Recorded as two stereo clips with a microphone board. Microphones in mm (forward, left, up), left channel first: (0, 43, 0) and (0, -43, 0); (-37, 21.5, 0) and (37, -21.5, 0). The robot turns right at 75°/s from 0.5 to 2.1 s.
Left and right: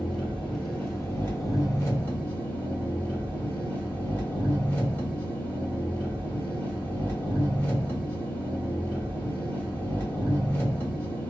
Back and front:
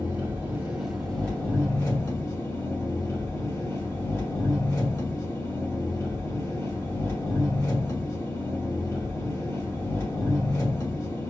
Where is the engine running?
20° left, 1.2 m; by 11.3 s 140° left, 1.2 m.